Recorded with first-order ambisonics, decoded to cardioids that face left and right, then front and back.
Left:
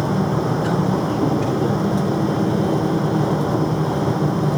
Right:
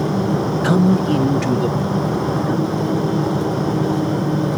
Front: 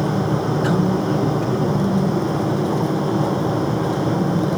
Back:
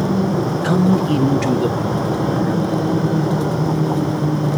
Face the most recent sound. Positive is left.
turn(degrees=-150)